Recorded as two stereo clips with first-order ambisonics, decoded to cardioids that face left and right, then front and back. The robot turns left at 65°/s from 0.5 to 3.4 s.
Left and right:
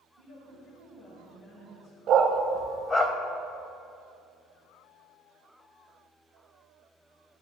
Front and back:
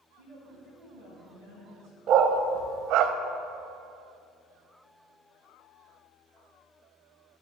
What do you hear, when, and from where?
0.2 s a woman speaking: 120° right, 3.5 m; by 2.0 s 145° left, 3.5 m
2.1 s a dog barking: 140° right, 0.6 m; by 3.1 s 150° left, 0.6 m